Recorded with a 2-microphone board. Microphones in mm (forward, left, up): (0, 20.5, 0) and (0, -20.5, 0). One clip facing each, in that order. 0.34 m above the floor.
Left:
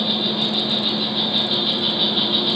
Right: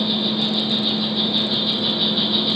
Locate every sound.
0.0 s an insect: 70° left (ahead or behind), 1.6 m